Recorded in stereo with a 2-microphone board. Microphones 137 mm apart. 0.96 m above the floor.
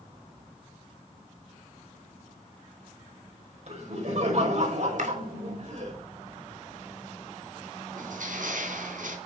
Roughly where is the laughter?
Right.